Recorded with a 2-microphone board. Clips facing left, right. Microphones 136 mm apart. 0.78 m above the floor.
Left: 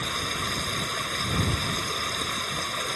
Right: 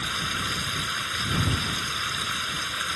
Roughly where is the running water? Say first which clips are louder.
Left 1 dB; left.